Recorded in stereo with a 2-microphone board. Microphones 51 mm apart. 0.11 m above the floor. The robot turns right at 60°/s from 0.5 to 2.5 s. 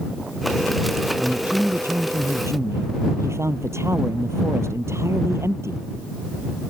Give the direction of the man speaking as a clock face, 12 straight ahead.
5 o'clock.